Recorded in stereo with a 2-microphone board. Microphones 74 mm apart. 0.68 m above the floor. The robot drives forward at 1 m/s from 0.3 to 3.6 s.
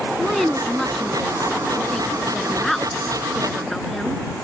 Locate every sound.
0.2 s a woman speaking: 5° left (ahead or behind)